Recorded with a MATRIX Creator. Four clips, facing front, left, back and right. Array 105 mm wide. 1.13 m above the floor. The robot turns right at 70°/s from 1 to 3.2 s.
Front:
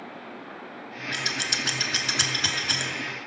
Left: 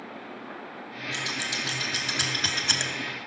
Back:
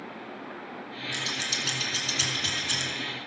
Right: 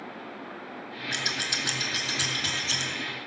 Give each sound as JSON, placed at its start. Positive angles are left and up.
{"t": 1.1, "sound": "scissors", "azimuth_deg": -55, "distance_m": 1.2}